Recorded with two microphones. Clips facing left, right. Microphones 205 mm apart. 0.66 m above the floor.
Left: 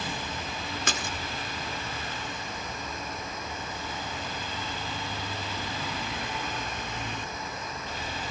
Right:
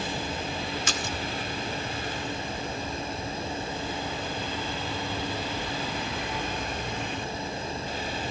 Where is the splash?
60° left (ahead or behind), 1.0 m.